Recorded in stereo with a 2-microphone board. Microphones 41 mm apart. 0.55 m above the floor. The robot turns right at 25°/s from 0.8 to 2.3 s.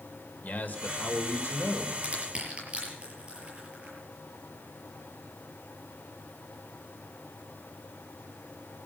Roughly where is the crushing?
Right.